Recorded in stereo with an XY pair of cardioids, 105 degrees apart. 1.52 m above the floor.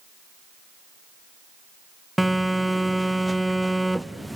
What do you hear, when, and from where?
2.2 s a phone buzzing: 5° right, 0.6 m